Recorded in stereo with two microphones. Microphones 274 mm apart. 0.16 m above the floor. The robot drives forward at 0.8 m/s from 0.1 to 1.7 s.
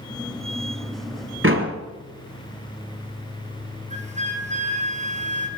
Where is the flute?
25° right (ahead or behind), 2.5 m.